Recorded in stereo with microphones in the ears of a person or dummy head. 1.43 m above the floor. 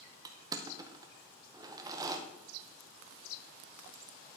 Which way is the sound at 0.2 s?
15° right (ahead or behind).